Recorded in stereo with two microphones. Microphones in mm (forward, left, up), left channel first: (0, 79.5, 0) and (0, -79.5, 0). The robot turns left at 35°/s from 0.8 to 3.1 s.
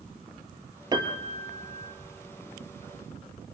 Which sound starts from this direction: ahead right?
A piano, at 0.9 s.